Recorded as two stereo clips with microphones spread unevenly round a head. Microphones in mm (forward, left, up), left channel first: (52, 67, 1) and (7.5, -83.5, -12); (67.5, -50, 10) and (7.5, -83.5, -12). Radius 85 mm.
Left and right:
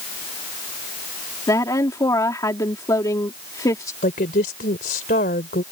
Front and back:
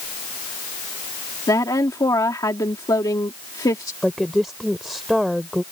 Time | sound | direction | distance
1.5 | a woman speaking | 5° left | ?
4.0 | a woman speaking | 115° left | ?